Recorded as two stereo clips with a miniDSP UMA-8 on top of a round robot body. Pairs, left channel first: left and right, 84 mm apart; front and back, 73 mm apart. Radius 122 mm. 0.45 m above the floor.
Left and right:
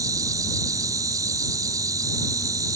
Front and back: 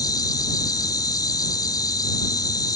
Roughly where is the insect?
Ahead right.